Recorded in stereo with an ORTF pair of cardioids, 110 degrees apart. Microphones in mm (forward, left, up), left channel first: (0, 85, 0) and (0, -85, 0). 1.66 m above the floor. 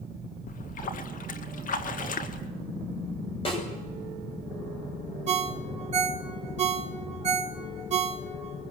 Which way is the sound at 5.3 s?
40° right.